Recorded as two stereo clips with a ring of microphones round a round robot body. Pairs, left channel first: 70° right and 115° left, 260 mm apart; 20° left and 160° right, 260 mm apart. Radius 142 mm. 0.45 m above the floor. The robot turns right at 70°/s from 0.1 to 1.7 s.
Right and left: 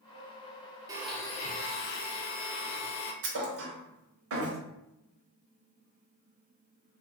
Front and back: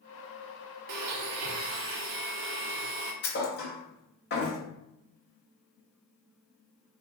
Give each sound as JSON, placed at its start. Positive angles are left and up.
{"t": 0.9, "sound": "a blender", "azimuth_deg": -170, "distance_m": 0.5}
{"t": 3.2, "sound": "a thud", "azimuth_deg": 75, "distance_m": 0.8}